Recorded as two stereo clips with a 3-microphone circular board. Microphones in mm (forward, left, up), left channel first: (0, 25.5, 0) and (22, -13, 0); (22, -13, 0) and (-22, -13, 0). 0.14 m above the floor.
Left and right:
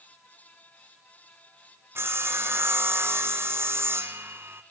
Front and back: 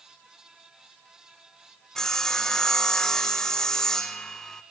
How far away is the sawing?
About 1.3 m.